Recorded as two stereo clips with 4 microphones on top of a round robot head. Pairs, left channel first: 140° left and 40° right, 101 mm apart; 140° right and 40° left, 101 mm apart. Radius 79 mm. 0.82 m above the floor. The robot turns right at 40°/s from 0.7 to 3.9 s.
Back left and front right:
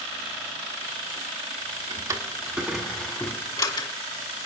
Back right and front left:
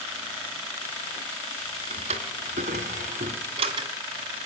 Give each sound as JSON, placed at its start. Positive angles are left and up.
{"t": 1.9, "sound": "a drawer", "azimuth_deg": 15, "distance_m": 1.7}